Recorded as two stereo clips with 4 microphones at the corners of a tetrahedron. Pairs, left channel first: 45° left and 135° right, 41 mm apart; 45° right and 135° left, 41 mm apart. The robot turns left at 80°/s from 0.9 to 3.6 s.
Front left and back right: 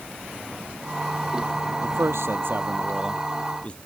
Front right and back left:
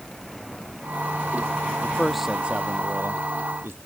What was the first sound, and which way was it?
A man speaking, 110° right.